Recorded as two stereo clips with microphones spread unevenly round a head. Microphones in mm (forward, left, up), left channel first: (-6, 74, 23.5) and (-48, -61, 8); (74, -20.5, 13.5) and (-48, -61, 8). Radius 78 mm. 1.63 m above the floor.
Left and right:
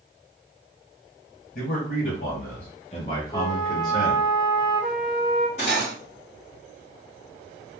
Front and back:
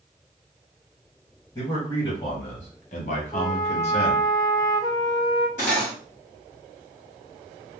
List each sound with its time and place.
1.6 s a man speaking: 90° left, 1.3 m; by 4.2 s 20° right, 1.2 m
3.3 s a flute: 60° left, 0.6 m
5.6 s cutlery clinking: 40° left, 1.7 m